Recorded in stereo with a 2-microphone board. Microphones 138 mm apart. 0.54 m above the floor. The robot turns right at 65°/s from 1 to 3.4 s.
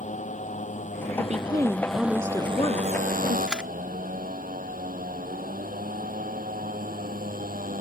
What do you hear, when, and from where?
0.0 s a motorcycle: 120° left; by 7.8 s 85° right
1.2 s a woman speaking: 60° right; by 3.4 s 80° left
3.5 s a camera shutter: 5° right (ahead or behind)